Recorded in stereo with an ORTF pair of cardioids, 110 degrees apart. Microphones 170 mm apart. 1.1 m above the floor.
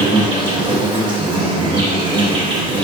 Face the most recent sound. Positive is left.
turn(degrees=-30)